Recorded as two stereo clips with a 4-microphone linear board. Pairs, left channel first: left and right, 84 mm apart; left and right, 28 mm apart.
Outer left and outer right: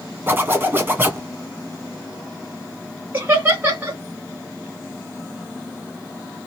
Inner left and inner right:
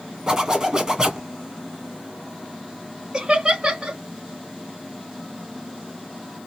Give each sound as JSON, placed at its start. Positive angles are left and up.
{"t": 0.3, "sound": "a zipper", "side_deg": -25, "distance_m": 1.7}
{"t": 3.1, "sound": "laughter", "side_deg": -20, "distance_m": 1.5}